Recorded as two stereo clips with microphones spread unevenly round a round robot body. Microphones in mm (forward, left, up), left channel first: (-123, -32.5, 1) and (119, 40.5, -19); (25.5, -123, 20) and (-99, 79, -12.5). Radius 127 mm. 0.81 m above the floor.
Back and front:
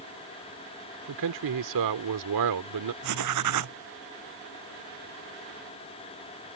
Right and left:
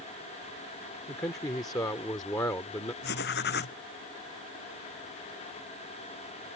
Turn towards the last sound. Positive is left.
turn(degrees=-5)